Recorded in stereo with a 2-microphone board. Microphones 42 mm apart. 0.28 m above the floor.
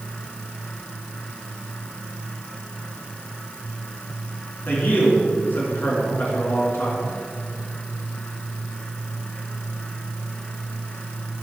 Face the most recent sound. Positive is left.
turn(degrees=55)  # may be behind; listen again after turning